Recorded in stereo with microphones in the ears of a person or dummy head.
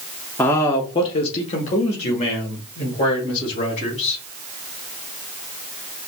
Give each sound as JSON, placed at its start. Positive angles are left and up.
{"t": 0.4, "sound": "a man speaking", "side_deg": 5, "distance_m": 0.6}